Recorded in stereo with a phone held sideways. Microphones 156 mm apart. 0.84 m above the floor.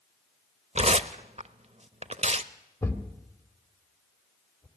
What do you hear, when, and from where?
0.8 s tearing paper: 45° right (ahead or behind), 0.7 m
2.8 s a thud: 15° left (ahead or behind), 1.9 m